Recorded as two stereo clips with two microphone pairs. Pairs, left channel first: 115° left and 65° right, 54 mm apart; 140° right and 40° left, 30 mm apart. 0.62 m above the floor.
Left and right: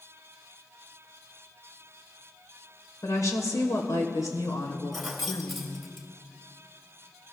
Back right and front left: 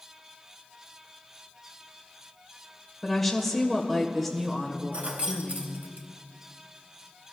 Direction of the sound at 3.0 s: 135° left.